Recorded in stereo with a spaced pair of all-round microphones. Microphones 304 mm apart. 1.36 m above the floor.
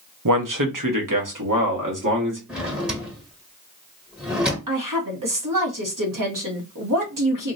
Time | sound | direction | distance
0.2 | a man speaking | 75° right (ahead or behind) | 0.6 m
2.5 | a drawer | 5° right (ahead or behind) | 1.2 m
4.7 | a woman speaking | 75° right (ahead or behind) | 1.2 m